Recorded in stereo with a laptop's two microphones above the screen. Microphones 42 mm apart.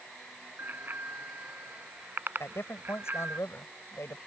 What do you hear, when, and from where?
0.6 s a bicycle bell: 50° right (ahead or behind)
2.4 s a man speaking: 85° left